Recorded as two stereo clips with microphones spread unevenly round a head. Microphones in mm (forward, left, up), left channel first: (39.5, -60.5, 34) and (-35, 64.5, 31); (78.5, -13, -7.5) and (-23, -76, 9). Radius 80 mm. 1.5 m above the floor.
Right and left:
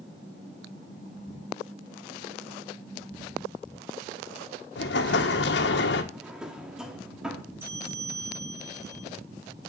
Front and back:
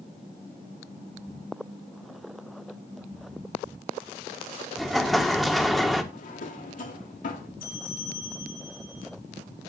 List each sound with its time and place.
4.8 s an explosion: 60° right, 1.6 m
6.1 s a drawer: 35° left, 1.6 m
7.6 s a bell: 45° left, 7 m